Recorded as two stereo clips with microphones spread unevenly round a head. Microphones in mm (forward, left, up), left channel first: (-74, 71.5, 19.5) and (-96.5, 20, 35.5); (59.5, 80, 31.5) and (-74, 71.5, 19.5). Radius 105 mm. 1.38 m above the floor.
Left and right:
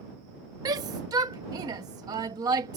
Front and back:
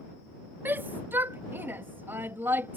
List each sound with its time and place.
0.7 s a shout: 95° right